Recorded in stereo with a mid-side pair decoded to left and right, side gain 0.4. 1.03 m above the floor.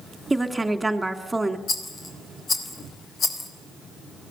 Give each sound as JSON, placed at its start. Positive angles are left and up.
{"t": 0.3, "sound": "a woman speaking", "azimuth_deg": -15, "distance_m": 2.5}
{"t": 1.7, "sound": "a rattle", "azimuth_deg": 50, "distance_m": 3.5}